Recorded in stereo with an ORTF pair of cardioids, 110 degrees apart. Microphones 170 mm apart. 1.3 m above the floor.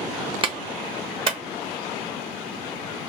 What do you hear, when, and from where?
0.4 s a clap: 30° right, 1.1 m